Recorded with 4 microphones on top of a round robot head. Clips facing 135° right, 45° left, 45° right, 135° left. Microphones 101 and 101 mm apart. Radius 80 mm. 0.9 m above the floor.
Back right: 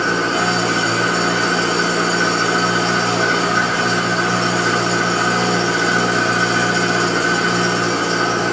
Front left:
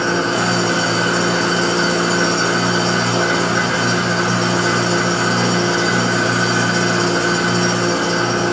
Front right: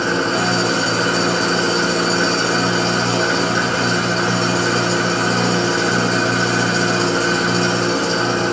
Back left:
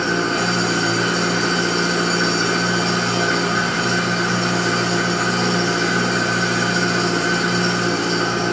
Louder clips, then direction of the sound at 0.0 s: Even, front right 2 dB; 15° right.